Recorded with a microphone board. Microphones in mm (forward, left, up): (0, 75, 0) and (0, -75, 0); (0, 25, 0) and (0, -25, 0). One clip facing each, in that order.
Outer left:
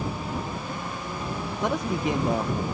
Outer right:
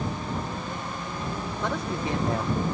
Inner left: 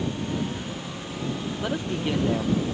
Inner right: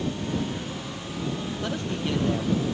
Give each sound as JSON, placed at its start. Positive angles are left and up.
{"t": 1.6, "sound": "a man speaking", "side_deg": 15}